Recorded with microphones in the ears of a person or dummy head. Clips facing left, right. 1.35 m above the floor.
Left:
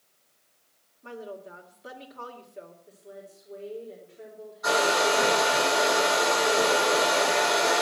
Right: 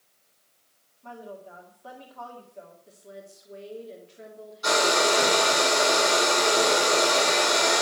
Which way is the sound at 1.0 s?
20° left (ahead or behind).